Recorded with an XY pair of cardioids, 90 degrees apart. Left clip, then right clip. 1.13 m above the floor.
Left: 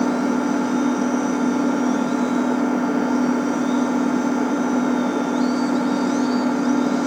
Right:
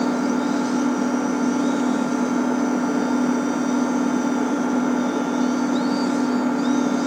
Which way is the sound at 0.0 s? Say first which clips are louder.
Left 1 dB; 15° left.